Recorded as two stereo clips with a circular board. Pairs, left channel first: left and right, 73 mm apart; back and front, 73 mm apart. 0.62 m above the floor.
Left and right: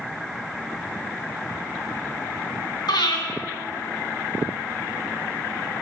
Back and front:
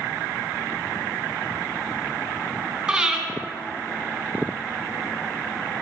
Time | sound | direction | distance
2.9 | breathing | 80° left | 3 m